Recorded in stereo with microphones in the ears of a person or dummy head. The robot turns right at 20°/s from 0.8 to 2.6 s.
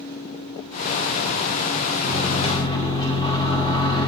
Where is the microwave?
35° left (ahead or behind), 2 m; by 4.1 s 25° left (ahead or behind), 2 m.